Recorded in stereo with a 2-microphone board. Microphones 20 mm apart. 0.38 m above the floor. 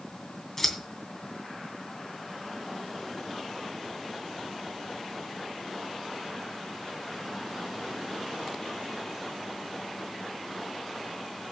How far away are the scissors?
About 2.5 m.